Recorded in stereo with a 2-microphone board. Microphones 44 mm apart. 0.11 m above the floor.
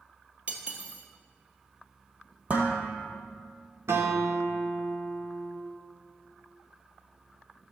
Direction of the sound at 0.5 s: 30° right (ahead or behind).